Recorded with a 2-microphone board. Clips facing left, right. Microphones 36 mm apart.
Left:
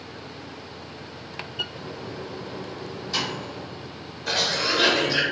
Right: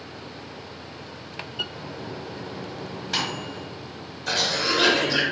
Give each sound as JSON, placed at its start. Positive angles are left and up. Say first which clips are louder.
{"t": 1.7, "sound": "a microwave", "louder": "even", "side_deg": -65, "distance_m": 1.0}
{"t": 4.3, "sound": "a cough", "louder": "even", "side_deg": 5, "distance_m": 0.6}